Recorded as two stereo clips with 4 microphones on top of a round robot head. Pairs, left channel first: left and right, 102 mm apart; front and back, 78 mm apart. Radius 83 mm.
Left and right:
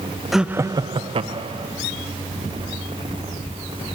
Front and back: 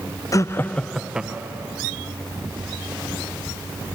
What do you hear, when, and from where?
0.3 s laughter: straight ahead, 0.7 m; by 1.7 s 110° right, 1.4 m